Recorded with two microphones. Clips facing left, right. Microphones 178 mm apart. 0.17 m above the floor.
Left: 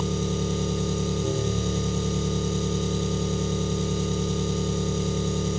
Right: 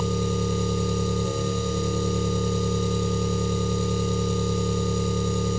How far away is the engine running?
About 1.3 m.